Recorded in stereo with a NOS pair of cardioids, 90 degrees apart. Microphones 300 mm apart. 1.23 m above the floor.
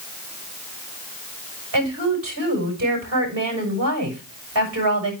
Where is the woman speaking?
50° right, 6 m.